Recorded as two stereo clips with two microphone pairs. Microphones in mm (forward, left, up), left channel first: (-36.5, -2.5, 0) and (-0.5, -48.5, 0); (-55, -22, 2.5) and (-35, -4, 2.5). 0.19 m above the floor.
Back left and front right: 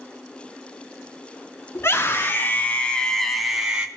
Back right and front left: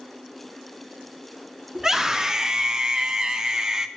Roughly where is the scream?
Left.